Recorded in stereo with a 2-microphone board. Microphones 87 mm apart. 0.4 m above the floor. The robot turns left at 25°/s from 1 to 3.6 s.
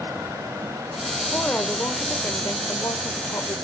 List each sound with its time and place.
1.3 s a woman speaking: 160° left, 1.0 m; by 3.5 s 105° left, 1.0 m